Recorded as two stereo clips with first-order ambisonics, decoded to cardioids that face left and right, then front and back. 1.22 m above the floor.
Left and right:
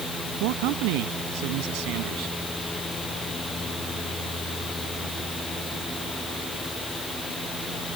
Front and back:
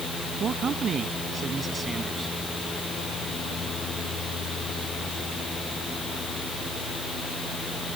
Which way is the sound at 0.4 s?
115° right.